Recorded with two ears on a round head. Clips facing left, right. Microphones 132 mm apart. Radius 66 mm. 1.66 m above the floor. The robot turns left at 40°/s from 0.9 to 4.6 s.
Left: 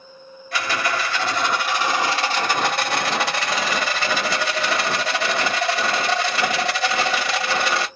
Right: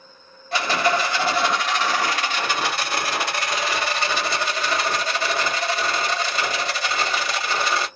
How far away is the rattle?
About 1.8 m.